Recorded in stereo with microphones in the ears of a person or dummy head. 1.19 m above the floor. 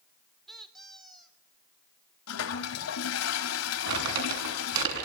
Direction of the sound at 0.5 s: Centre (ahead or behind).